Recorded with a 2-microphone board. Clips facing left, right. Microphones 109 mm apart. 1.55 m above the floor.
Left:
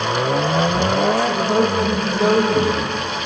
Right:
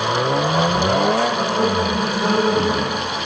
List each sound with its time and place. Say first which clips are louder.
1.3 s a man speaking: left 1 dB; 80° left, 1.7 m